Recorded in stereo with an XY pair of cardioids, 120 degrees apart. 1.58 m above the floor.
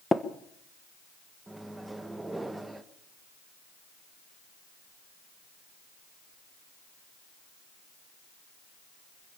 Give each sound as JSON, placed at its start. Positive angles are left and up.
{"t": 0.1, "sound": "tapping", "azimuth_deg": 15, "distance_m": 1.4}
{"t": 1.5, "sound": "a microwave", "azimuth_deg": -10, "distance_m": 1.4}